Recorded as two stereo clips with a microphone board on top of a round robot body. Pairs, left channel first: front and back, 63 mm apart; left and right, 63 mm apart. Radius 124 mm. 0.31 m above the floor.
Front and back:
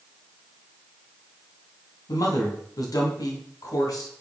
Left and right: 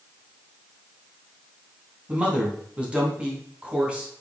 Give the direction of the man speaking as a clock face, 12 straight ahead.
1 o'clock.